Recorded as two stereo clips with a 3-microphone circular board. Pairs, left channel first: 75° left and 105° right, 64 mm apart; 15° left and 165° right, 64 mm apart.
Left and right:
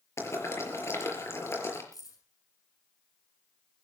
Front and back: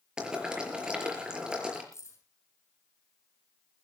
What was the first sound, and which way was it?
Boiling, 115° left.